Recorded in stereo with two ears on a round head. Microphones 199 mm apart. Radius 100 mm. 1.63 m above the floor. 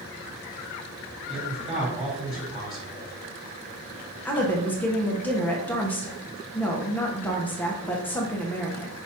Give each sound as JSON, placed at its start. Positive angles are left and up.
{"t": 1.3, "sound": "a man speaking", "side_deg": -25, "distance_m": 2.5}
{"t": 4.2, "sound": "a woman speaking", "side_deg": 10, "distance_m": 0.9}